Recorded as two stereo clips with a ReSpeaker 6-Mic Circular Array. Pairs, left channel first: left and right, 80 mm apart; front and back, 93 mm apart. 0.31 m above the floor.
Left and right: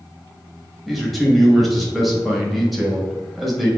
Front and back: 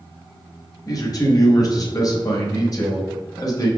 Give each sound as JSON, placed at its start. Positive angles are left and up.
{"t": 0.9, "sound": "a man speaking", "azimuth_deg": 0, "distance_m": 1.2}